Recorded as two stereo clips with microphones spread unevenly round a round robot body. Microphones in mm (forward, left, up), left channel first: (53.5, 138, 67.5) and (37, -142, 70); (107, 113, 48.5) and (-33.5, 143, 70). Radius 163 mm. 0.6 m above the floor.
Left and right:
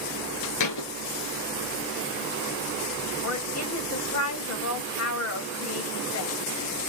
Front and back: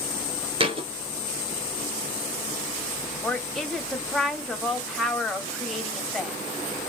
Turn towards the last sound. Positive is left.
turn(degrees=70)